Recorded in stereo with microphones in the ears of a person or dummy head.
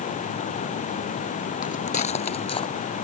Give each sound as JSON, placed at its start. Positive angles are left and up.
{"t": 1.6, "sound": "footsteps", "side_deg": 45}